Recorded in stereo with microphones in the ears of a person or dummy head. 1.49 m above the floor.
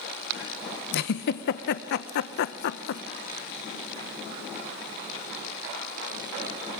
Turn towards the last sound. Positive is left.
turn(degrees=60)  # may be behind; listen again after turning